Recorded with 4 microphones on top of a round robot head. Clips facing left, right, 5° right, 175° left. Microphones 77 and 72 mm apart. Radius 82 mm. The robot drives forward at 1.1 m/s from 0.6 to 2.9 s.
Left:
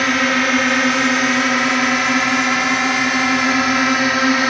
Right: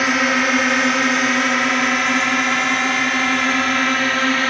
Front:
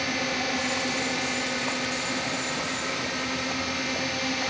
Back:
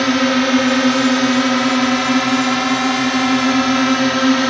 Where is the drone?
175° right; by 4.5 s 165° left.